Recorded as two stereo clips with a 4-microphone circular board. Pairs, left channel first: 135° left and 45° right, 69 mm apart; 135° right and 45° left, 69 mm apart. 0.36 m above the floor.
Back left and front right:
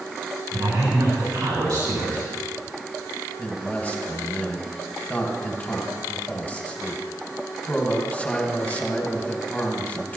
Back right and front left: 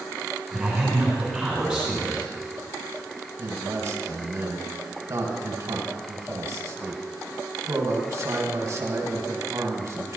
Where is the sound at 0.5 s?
40° right, 3 m.